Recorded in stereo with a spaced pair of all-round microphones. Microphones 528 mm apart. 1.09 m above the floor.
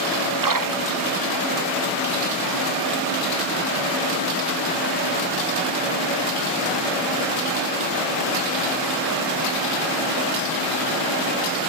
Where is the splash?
40° right (ahead or behind).